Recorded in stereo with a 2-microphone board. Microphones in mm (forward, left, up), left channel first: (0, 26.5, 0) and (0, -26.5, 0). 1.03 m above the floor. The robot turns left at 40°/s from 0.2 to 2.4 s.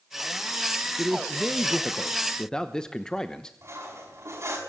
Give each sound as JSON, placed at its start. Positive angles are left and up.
{"t": 1.0, "sound": "a man speaking", "azimuth_deg": -140, "distance_m": 1.0}
{"t": 3.6, "sound": "cutlery clinking", "side_deg": -65, "distance_m": 5.5}